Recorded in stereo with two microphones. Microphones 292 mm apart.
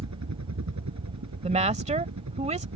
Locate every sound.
0.0 s a helicopter: 70° right (ahead or behind)
1.4 s a woman speaking: 25° right (ahead or behind)